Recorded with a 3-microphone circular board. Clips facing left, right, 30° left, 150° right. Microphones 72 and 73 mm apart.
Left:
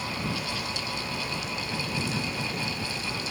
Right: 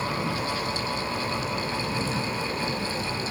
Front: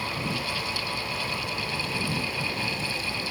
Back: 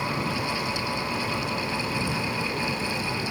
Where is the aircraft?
170° right.